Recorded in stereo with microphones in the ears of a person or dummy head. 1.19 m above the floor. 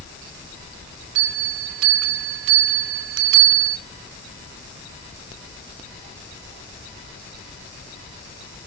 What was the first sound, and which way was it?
A bell, 75° right (ahead or behind).